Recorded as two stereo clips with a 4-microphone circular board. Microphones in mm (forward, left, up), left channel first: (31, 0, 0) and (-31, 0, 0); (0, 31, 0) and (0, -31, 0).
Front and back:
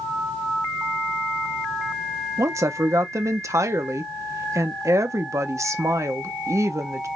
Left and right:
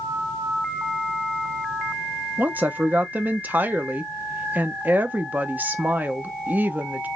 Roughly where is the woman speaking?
Behind right.